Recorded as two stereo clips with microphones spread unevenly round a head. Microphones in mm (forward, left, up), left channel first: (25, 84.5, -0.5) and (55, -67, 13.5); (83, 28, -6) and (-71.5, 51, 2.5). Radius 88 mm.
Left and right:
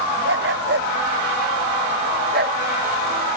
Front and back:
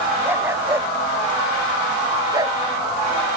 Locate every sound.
0.2 s a dog barking: 110° right; by 2.6 s 120° right